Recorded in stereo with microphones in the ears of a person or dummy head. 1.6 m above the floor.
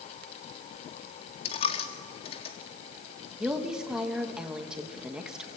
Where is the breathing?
No breathing in this recording.